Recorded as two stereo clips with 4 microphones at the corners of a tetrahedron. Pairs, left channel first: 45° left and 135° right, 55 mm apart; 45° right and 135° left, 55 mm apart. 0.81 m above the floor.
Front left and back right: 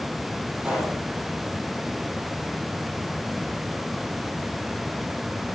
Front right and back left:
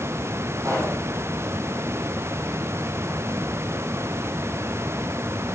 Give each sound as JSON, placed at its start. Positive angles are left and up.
{"t": 0.6, "sound": "a pop", "azimuth_deg": 150, "distance_m": 5.5}